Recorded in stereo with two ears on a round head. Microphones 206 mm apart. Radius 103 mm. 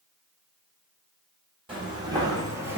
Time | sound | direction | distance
1.7 | footsteps | 25° right (ahead or behind) | 1.3 m